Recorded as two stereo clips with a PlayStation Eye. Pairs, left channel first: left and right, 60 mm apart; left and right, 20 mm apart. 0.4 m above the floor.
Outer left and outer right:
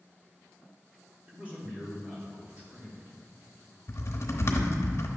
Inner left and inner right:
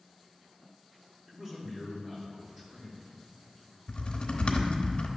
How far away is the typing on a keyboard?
About 0.9 m.